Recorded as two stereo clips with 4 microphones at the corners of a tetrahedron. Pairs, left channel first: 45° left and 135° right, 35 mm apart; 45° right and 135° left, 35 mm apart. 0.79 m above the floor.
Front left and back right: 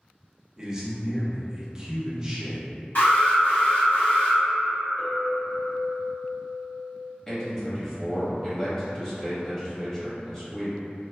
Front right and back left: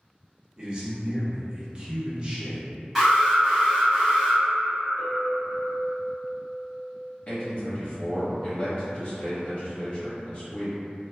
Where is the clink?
20° left, 2.0 m.